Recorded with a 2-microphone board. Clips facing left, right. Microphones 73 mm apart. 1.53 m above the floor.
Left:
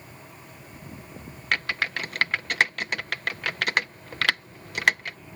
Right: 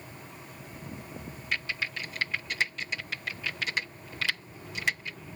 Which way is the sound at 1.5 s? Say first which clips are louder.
Left 7 dB; 70° left (ahead or behind).